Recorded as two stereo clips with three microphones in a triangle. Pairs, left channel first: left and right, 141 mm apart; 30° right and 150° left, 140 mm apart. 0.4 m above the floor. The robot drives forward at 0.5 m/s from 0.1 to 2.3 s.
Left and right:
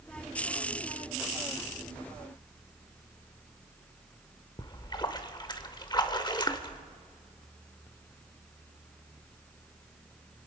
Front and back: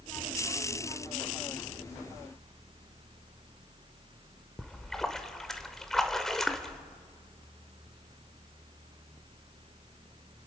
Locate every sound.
4.6 s a splash: 55° left, 0.8 m